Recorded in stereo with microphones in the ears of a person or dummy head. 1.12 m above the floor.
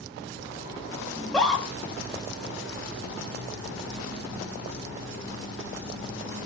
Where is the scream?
5° left (ahead or behind), 0.7 m.